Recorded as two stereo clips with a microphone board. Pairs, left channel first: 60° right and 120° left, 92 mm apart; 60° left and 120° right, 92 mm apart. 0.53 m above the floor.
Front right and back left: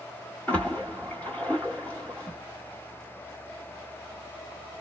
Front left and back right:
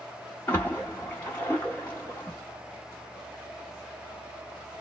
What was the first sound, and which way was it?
A splash, 5° left.